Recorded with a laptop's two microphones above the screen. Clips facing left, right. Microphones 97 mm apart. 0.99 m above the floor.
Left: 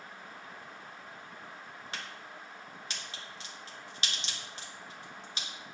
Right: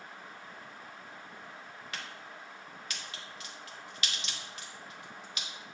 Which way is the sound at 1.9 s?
30° left (ahead or behind).